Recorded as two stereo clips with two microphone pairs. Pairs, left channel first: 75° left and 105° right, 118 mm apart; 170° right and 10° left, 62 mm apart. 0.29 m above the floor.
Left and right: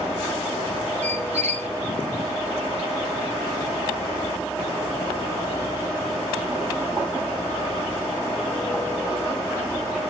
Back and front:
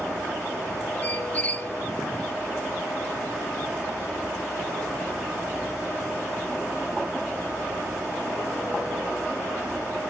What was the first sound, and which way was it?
A squeak, 105° right.